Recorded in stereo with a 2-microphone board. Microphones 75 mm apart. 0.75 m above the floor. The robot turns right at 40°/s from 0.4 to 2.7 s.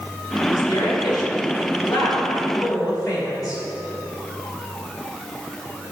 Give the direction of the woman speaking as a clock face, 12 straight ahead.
11 o'clock.